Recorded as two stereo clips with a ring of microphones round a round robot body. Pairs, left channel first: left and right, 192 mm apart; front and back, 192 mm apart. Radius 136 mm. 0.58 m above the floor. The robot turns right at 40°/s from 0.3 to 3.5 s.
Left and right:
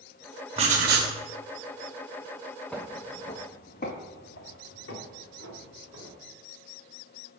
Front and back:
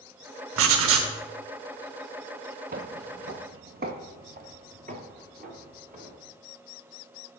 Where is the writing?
160° right, 0.8 m; by 1.1 s 140° right, 0.8 m.